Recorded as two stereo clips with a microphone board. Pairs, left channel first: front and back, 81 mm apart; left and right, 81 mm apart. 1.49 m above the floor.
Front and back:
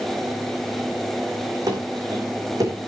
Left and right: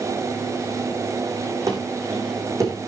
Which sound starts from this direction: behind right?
Running footsteps, at 1.7 s.